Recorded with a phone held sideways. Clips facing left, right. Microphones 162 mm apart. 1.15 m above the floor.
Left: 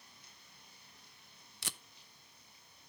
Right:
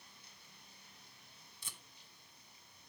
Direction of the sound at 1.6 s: 80° left.